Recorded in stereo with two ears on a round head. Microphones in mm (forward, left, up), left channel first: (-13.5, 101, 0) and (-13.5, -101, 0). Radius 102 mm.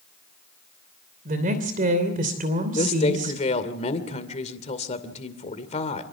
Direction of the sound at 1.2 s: 40° right (ahead or behind).